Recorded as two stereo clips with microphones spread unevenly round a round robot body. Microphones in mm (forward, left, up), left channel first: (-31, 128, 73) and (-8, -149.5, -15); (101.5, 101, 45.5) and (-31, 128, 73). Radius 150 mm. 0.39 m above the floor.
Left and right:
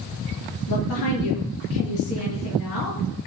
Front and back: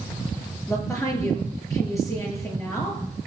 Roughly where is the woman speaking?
Ahead left.